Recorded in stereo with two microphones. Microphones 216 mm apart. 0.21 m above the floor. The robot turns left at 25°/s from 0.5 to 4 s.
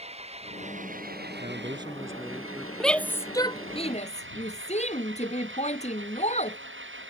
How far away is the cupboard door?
No cupboard door in this recording.